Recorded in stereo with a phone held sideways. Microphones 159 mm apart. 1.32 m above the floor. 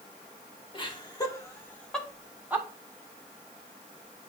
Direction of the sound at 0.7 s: 30° left (ahead or behind).